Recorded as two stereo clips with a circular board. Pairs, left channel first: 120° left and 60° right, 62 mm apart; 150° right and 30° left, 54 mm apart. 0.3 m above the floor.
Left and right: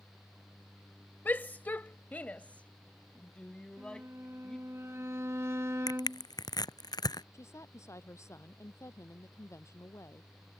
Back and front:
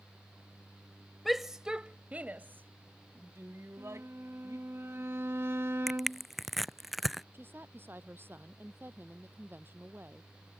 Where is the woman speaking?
80° left.